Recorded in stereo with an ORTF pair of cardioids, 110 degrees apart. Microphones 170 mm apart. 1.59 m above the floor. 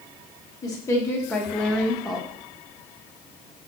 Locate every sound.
0.6 s a woman speaking: 20° left, 1.8 m; by 2.3 s 5° right, 1.9 m